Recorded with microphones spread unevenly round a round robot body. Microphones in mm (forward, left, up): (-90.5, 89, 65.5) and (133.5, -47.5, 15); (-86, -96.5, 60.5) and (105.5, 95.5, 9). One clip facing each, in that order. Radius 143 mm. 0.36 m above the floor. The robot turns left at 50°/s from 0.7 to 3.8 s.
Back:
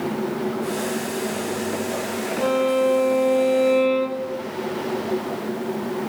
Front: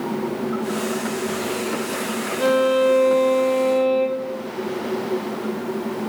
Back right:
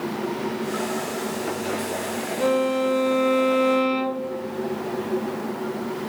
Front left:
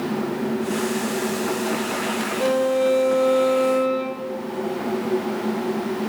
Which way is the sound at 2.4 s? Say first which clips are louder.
Front 3 dB, front left 2 dB; 45° right.